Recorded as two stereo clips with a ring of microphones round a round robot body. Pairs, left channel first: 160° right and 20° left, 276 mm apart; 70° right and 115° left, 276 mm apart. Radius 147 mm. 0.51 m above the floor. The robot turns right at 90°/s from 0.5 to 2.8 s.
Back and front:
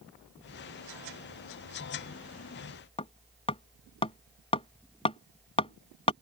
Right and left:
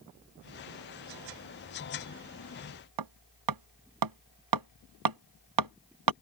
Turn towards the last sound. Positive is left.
turn(degrees=130)